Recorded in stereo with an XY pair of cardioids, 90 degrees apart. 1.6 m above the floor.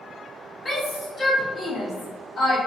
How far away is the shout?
About 1.2 m.